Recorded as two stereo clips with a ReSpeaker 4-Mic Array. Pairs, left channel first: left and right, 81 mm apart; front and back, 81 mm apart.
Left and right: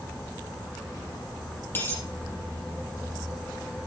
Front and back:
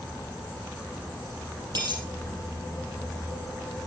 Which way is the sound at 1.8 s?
150° left.